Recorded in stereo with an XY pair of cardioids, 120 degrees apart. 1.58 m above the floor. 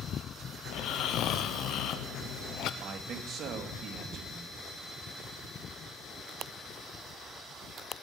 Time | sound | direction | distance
0.7 | snoring | 70° left | 0.7 m
2.8 | a man speaking | 50° right | 2 m